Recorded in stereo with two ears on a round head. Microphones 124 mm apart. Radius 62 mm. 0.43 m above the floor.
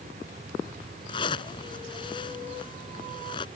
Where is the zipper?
35° left (ahead or behind).